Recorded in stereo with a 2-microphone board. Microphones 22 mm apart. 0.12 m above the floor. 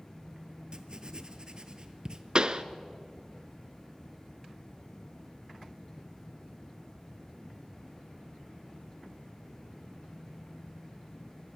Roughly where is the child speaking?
No child speaking in this recording.